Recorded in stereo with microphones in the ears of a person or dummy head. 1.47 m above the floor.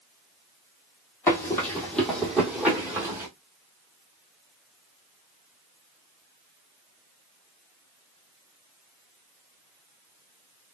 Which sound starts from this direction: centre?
Running footsteps, at 1.3 s.